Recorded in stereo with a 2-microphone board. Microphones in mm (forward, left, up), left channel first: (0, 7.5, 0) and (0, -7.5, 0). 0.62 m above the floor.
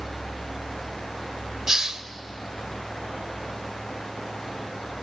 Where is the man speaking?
No man speaking in this recording.